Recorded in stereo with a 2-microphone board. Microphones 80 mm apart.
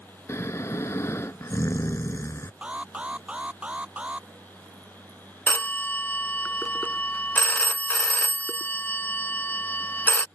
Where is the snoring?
40° left (ahead or behind).